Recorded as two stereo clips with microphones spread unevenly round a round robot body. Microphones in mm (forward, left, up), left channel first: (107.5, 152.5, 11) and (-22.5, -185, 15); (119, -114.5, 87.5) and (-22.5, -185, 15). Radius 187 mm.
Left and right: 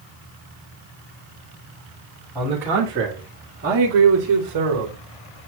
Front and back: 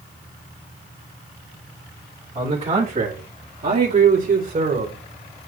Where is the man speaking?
160° left, 3 m; by 5.0 s 150° right, 3 m.